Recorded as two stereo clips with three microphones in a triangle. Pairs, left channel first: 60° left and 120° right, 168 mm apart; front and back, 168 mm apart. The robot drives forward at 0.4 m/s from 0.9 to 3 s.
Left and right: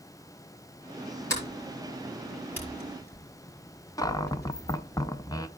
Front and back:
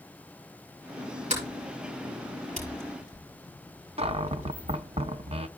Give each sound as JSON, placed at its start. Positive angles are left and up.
{"t": 1.3, "sound": "a sliding door", "azimuth_deg": 135, "distance_m": 5.0}
{"t": 4.0, "sound": "a cupboard door", "azimuth_deg": 130, "distance_m": 0.6}